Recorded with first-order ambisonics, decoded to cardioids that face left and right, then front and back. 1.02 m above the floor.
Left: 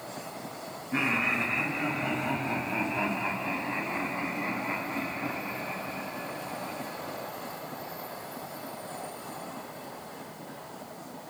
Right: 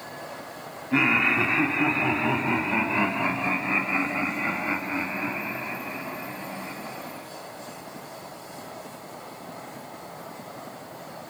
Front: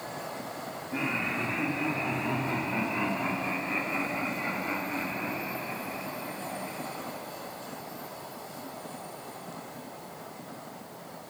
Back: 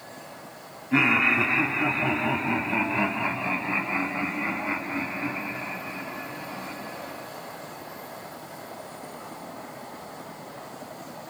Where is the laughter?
135° right, 3 m; by 7.3 s 90° right, 10.5 m.